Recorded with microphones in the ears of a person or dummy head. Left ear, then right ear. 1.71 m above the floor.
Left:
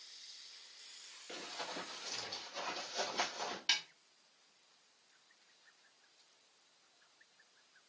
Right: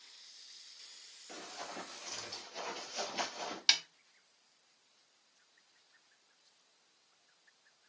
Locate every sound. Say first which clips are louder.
1.3 s running footsteps: left 1 dB; 5° left (ahead or behind), 1.9 m; by 3.6 s 30° right (ahead or behind), 2 m
3.7 s a snare drum: right 6 dB; 45° right (ahead or behind), 0.5 m